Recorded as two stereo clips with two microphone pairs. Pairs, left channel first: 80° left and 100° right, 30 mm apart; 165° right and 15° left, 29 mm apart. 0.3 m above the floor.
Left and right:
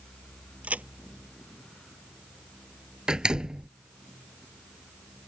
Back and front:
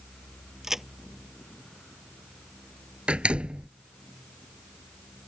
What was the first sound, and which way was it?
A crack, 65° right.